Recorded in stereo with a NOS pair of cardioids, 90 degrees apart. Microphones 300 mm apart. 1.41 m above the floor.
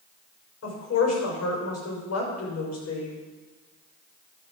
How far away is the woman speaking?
About 5.5 m.